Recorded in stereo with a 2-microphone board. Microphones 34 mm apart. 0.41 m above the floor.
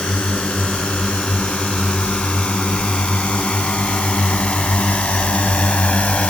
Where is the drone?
30° left (ahead or behind); by 6.3 s 40° left (ahead or behind).